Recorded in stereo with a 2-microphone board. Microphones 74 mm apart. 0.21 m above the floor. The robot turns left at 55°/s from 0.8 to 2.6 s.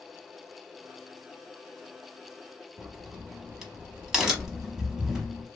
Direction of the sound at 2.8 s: 5° right (ahead or behind).